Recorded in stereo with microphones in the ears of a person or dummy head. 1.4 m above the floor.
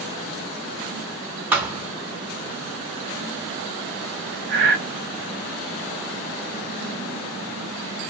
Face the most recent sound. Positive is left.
turn(degrees=-70)  # may be behind; listen again after turning